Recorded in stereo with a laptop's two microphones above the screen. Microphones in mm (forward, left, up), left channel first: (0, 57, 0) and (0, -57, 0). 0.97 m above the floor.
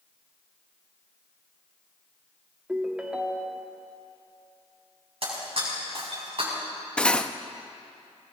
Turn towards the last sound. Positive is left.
turn(degrees=10)  # may be behind; listen again after turning